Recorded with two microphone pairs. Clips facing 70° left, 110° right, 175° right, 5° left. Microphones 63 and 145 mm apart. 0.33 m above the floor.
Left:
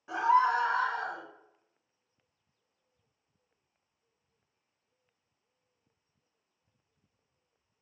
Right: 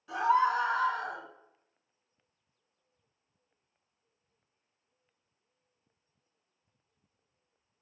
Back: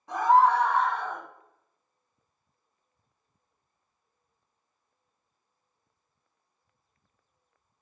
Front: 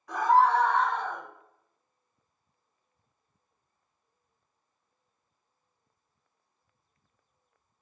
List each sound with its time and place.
0.1 s a scream: 125° left, 2 m; by 1.2 s 95° left, 2 m